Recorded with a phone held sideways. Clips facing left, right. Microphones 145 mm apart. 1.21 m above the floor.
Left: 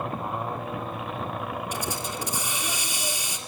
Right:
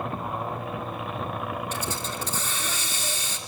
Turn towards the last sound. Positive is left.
turn(degrees=15)  # may be behind; listen again after turning